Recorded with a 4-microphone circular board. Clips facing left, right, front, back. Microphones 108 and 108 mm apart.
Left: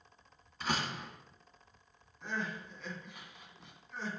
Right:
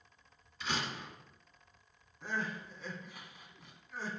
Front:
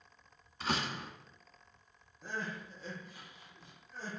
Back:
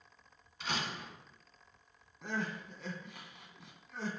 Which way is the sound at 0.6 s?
50° left.